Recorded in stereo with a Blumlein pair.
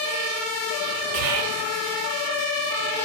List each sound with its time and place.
1.1 s whispering: 50° right, 0.6 m